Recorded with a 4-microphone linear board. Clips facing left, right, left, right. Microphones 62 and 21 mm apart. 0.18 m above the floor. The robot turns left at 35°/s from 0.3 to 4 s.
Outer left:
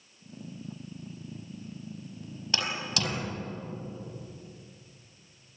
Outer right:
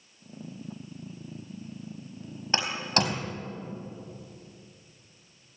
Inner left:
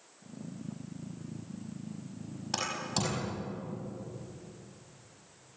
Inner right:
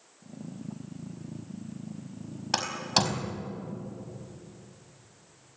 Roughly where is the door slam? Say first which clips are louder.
Outer right 5 dB, inner right 7 dB; right.